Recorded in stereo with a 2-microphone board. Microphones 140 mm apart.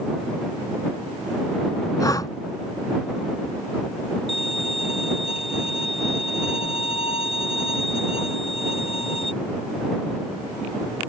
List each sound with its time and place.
2.0 s breathing: 25° left (ahead or behind)
4.3 s a violin: 45° left (ahead or behind)